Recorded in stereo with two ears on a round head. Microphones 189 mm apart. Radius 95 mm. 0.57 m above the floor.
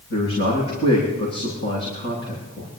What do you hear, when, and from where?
0.1 s a man speaking: 85° left, 9 m